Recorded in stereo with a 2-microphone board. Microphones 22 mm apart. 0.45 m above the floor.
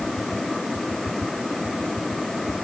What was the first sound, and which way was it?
Only background noise.